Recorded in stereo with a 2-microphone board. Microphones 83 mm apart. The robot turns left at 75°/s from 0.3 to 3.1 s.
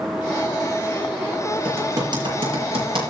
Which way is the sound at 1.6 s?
15° right (ahead or behind).